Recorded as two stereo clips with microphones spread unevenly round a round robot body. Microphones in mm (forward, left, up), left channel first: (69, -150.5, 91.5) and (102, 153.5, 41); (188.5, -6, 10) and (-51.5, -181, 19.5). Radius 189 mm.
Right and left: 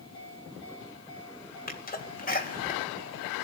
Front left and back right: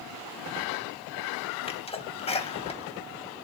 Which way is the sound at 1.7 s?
30° right.